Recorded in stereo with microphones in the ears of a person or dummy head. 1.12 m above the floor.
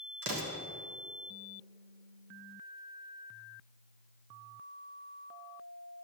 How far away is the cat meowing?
No cat meowing in this recording.